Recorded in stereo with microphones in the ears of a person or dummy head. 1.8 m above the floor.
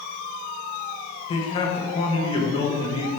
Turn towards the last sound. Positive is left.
turn(degrees=30)  # may be behind; listen again after turning